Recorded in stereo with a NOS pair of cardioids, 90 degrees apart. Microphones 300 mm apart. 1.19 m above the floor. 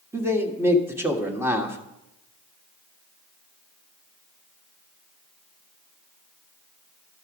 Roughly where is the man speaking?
Ahead.